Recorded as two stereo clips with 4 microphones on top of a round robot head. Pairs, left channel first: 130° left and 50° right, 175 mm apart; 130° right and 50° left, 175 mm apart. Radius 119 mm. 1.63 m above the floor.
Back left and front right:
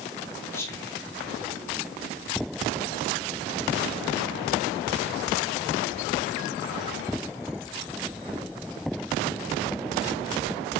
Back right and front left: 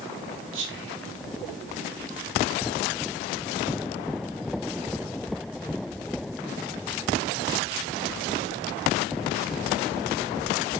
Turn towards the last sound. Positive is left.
turn(degrees=55)